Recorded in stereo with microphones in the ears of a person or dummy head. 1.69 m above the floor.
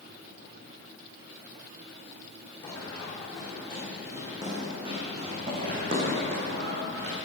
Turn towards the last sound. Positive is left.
turn(degrees=-60)  # may be behind; listen again after turning